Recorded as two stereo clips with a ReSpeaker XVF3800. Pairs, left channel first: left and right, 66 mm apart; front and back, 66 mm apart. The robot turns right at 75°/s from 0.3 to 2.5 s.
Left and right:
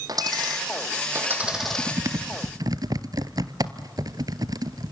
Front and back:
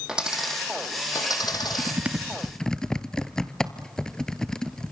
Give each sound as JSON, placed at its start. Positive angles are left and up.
{"t": 0.1, "sound": "a dropped coin", "azimuth_deg": -105, "distance_m": 3.5}
{"t": 1.4, "sound": "typing on a keyboard", "azimuth_deg": -160, "distance_m": 0.9}